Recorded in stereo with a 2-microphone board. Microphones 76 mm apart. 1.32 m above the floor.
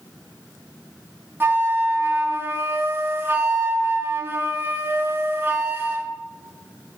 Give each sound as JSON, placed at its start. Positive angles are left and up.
{"t": 1.4, "sound": "a flute", "side_deg": -30, "distance_m": 0.7}